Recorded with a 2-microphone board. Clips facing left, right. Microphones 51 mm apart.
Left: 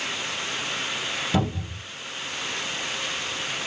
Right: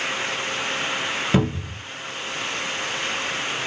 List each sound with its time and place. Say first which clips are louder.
1.3 s a cupboard door: right 4 dB; 35° right (ahead or behind), 1.1 m